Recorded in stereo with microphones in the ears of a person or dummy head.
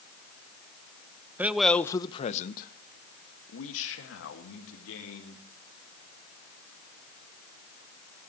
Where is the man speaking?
10° right (ahead or behind), 1.1 m; by 5.4 s 85° left, 3.5 m.